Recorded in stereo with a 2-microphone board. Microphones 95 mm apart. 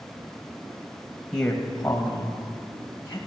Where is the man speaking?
5° left (ahead or behind), 1.5 m; by 3.2 s 30° left (ahead or behind), 2.5 m.